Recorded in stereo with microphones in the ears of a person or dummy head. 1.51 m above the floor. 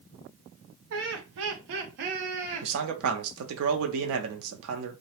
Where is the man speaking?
80° right, 0.6 m.